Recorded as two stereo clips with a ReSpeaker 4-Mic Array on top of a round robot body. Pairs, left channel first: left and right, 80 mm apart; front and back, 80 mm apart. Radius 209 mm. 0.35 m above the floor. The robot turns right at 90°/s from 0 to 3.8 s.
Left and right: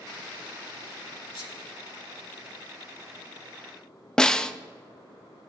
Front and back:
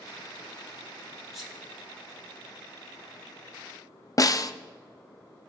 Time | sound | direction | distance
1.3 | a sneeze | 90° left | 3.5 m
4.2 | a snare drum | 10° left | 0.6 m